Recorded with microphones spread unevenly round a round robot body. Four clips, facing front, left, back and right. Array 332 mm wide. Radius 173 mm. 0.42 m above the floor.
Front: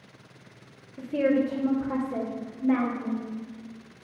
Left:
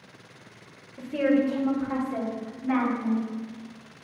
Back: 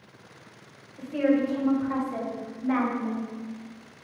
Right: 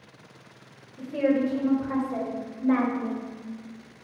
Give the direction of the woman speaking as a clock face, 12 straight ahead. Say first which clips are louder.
Left 1 dB, even; 12 o'clock.